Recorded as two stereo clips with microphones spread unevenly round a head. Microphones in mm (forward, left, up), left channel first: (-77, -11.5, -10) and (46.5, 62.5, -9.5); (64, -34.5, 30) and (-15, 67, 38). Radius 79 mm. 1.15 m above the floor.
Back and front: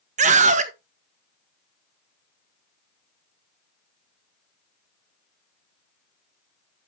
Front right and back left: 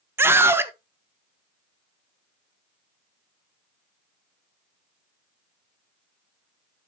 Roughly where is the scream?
Ahead left.